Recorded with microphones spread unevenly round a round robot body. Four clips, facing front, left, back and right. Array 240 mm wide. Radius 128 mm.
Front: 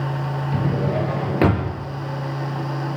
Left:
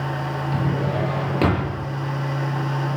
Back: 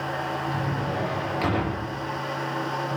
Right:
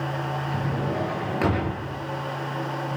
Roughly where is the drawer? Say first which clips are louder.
Left 5 dB, front 5 dB; ahead.